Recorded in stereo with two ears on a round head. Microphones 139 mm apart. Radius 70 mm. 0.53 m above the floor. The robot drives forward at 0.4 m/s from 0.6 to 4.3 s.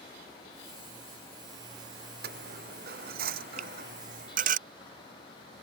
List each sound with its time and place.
2.2 s a dropped coin: 70° right (ahead or behind); by 4.6 s 55° right (ahead or behind)
3.6 s a finger snap: 45° right (ahead or behind)